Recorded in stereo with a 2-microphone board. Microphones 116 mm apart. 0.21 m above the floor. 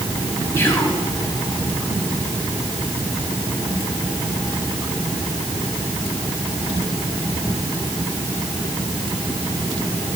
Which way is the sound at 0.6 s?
20° left (ahead or behind).